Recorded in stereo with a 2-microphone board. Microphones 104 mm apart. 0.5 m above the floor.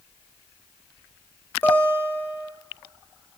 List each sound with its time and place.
1.6 s a guitar: 20° left (ahead or behind), 2 m